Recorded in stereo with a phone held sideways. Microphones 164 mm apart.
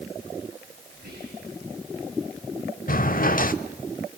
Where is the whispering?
65° right (ahead or behind), 9.5 m.